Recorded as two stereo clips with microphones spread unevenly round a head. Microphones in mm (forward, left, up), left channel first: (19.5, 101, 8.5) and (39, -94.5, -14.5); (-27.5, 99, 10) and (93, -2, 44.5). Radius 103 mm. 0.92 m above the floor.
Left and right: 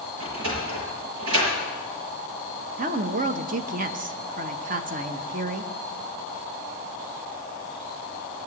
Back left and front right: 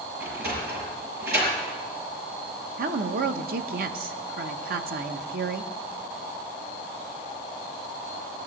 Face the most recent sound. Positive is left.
turn(degrees=-60)